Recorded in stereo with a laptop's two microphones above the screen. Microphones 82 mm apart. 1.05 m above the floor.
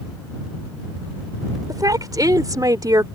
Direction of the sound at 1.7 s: 50° right (ahead or behind).